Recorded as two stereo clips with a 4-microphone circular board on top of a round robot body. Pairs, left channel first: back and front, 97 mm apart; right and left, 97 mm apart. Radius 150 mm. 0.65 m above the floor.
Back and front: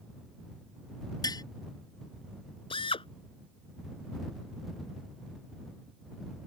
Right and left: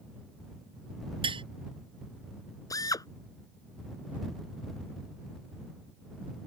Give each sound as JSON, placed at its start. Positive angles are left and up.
{"t": 1.2, "sound": "tapping", "azimuth_deg": 125}
{"t": 2.7, "sound": "a drill", "azimuth_deg": -145}